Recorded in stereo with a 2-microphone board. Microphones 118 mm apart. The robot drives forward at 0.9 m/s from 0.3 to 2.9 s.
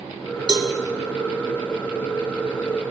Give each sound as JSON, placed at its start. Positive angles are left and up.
{"t": 0.5, "sound": "a cowbell", "side_deg": -35, "distance_m": 1.7}